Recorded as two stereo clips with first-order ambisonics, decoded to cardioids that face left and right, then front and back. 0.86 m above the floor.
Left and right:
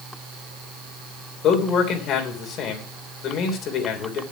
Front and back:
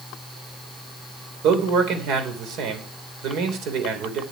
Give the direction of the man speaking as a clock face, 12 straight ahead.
7 o'clock.